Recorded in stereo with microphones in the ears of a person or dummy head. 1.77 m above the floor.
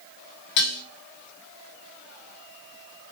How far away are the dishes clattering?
About 1.9 m.